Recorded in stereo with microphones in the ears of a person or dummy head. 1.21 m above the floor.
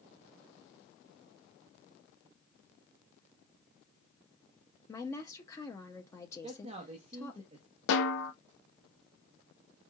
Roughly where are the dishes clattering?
No dishes clattering in this recording.